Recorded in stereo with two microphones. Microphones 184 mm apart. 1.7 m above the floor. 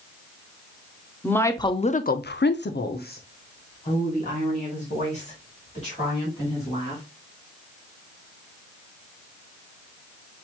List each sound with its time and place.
1.2 s a woman speaking: 10° left (ahead or behind), 0.8 m; by 7.0 s 35° left (ahead or behind), 3.5 m